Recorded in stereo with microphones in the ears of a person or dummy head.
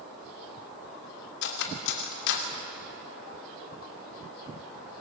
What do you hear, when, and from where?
1.4 s cutlery clinking: 65° left (ahead or behind), 2.5 m